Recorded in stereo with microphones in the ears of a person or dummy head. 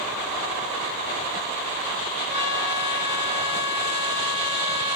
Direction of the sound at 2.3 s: 75° left (ahead or behind).